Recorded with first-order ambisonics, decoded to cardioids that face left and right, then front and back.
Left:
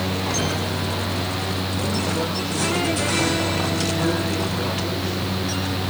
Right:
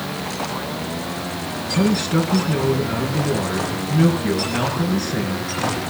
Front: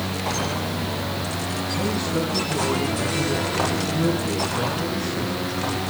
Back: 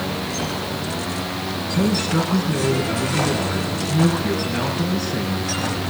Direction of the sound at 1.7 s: 125° right.